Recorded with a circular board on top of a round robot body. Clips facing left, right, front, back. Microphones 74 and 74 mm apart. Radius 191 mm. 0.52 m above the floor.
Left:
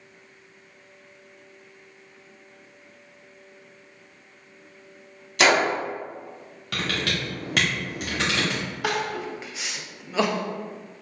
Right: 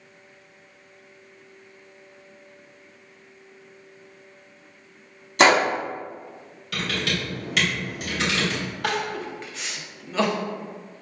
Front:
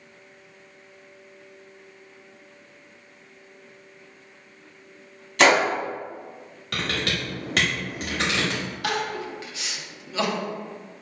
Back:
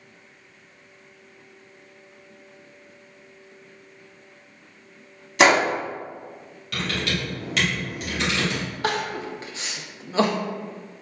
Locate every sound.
5.4 s a gunshot: 115° right, 1.2 m
6.7 s typing on a keyboard: 45° left, 0.7 m
8.8 s crying: 170° left, 0.7 m